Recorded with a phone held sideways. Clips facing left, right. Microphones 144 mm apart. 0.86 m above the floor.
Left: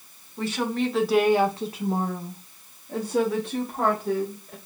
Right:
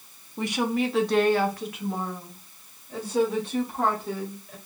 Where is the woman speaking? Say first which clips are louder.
Even; 20° right (ahead or behind), 0.8 m; by 4.5 s 60° left (ahead or behind), 1.8 m.